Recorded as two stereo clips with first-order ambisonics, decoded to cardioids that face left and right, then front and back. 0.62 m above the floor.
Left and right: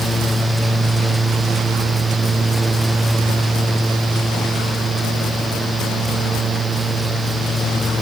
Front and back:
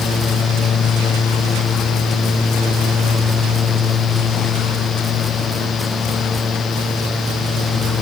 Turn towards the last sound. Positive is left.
No sound to turn to.